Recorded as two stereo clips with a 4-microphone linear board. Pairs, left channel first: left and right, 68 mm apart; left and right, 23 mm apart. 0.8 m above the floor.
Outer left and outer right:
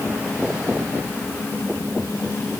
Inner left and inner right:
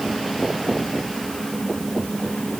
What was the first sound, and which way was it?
Only background noise.